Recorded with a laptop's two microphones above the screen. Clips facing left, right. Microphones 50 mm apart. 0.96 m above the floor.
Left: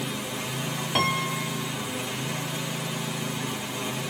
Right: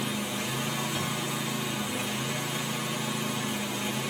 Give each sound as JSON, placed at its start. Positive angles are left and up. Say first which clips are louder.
{"t": 0.9, "sound": "a piano", "louder": "left 6 dB", "side_deg": 75}